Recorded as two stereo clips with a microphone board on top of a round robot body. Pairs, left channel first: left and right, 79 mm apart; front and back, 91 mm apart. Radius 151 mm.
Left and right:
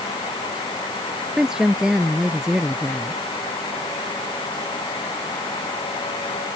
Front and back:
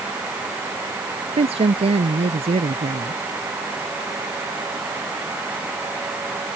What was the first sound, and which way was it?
A woman speaking, 170° right.